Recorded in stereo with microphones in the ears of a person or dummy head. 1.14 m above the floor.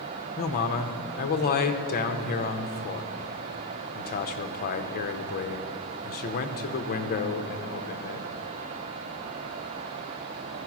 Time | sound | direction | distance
0.4 | a man speaking | 45° left (ahead or behind) | 0.7 m